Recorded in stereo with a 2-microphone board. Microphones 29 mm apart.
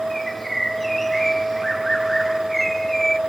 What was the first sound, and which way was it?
A bird, 5° left (ahead or behind).